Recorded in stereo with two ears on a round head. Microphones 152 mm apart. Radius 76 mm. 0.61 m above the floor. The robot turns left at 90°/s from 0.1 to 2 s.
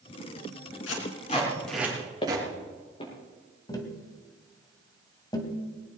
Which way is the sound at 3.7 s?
25° left (ahead or behind).